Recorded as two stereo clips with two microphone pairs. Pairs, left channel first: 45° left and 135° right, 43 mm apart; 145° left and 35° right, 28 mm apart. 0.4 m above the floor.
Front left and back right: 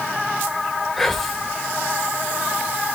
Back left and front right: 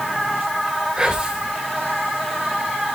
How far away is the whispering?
About 1.0 m.